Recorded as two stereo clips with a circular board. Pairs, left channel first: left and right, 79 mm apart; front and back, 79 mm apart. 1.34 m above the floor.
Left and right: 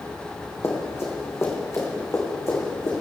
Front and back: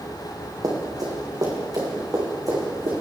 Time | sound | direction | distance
0.6 | running footsteps | 145° left | 3 m